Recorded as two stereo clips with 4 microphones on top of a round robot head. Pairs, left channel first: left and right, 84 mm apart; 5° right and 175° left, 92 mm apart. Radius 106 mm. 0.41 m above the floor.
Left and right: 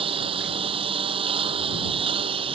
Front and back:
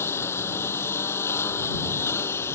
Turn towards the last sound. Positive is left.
turn(degrees=-75)